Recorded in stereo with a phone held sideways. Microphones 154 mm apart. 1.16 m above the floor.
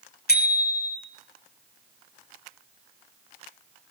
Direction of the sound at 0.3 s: 85° left.